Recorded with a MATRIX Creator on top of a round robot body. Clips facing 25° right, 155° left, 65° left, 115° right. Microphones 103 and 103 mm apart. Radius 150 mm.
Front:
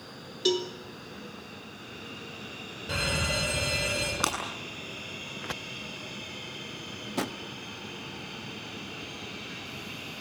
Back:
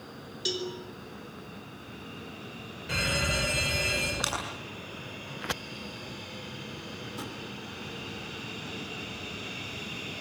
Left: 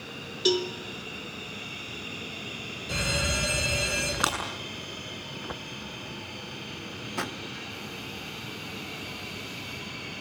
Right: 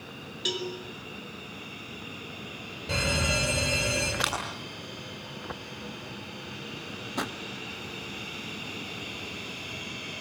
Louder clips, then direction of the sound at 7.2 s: Front 10 dB, right 1 dB; 30° right.